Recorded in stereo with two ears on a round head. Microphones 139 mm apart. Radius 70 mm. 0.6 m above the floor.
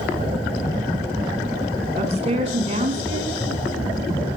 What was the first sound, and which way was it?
A woman speaking, 45° right (ahead or behind).